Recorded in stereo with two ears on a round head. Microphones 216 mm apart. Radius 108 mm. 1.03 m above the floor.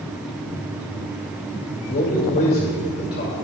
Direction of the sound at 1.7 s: 45° left (ahead or behind).